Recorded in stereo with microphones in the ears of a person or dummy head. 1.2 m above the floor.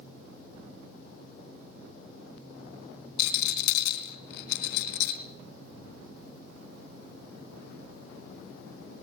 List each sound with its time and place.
3.2 s a rattle: 65° left (ahead or behind), 2.5 m